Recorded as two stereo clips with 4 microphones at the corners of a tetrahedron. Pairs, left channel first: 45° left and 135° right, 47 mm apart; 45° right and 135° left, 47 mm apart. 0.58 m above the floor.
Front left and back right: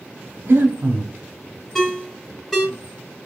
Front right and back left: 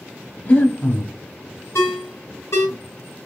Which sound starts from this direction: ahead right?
A ringtone, at 1.8 s.